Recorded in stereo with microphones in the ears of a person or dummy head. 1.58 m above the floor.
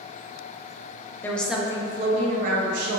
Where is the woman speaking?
15° left (ahead or behind), 0.5 m; by 3.0 s 65° right (ahead or behind), 0.8 m.